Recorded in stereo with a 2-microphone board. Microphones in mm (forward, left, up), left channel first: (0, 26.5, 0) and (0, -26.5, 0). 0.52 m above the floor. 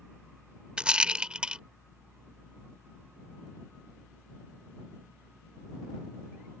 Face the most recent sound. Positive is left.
turn(degrees=-15)  # may be behind; listen again after turning